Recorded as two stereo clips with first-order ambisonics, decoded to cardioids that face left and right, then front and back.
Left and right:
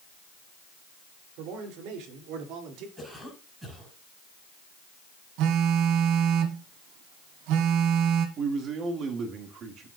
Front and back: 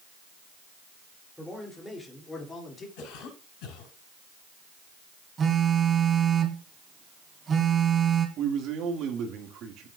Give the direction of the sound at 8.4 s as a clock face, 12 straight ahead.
5 o'clock.